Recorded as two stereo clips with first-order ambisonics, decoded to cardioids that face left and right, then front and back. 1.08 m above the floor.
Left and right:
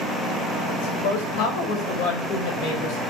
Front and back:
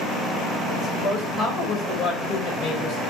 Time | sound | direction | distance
0.7 | a woman speaking | 95° left | 5.5 m